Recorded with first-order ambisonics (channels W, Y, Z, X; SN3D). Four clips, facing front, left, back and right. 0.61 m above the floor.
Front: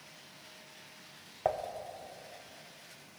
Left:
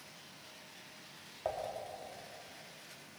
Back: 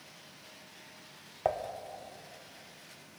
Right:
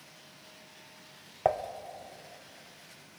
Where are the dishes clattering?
95° right, 0.6 m.